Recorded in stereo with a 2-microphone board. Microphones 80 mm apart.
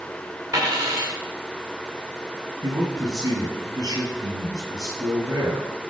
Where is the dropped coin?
40° right (ahead or behind), 6.5 m.